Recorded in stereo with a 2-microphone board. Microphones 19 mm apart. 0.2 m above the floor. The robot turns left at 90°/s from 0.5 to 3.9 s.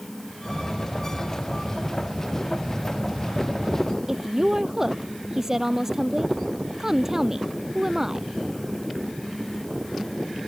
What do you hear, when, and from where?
4.1 s a woman speaking: 20° right (ahead or behind)